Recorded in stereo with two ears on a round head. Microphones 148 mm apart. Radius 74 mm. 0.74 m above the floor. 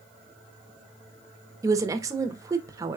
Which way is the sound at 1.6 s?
20° right (ahead or behind).